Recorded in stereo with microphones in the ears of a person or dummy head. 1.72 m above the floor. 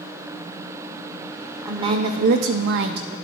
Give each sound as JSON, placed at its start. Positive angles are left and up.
{"t": 1.6, "sound": "a woman speaking", "side_deg": -20, "distance_m": 0.9}